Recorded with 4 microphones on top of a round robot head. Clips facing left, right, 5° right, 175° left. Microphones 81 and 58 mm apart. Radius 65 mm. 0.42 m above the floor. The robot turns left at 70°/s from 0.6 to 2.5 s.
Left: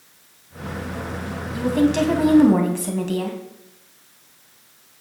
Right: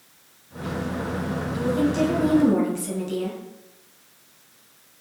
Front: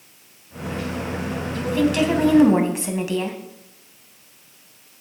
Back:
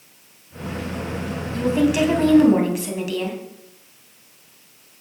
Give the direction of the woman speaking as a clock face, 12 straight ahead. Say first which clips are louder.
Left 4 dB, back 2 dB; 8 o'clock.